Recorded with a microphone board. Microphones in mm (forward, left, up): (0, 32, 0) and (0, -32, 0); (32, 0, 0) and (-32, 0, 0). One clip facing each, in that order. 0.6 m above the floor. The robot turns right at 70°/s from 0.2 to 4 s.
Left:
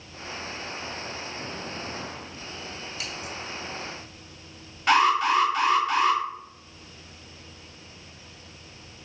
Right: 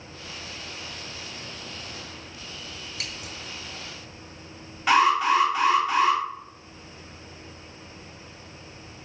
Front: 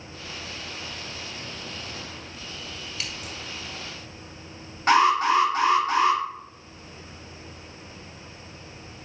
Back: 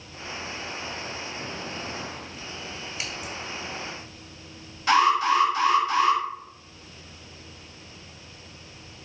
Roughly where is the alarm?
Ahead.